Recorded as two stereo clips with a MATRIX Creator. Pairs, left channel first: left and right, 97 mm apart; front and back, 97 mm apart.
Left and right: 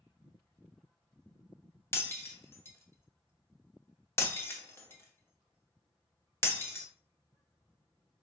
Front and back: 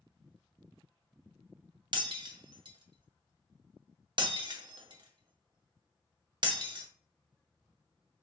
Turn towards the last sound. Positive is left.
turn(degrees=150)